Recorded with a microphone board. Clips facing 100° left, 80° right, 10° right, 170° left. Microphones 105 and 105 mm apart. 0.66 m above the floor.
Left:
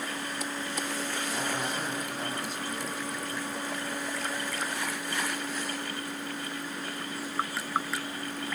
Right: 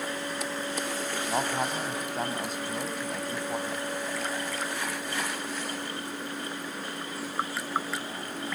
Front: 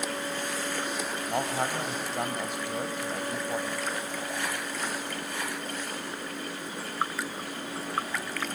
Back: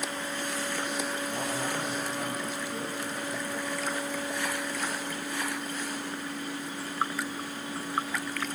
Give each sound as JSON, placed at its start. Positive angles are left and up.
{"t": 1.3, "sound": "a man speaking", "azimuth_deg": -40, "distance_m": 3.0}